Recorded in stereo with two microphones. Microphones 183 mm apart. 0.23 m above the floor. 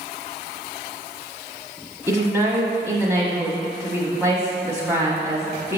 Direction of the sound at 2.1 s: 15° right (ahead or behind).